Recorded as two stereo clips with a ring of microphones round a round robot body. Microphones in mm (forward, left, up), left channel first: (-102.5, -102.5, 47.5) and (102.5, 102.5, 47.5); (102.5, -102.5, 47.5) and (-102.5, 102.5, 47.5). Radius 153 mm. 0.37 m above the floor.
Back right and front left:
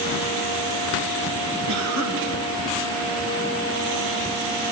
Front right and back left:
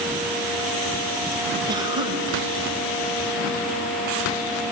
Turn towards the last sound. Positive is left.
turn(degrees=60)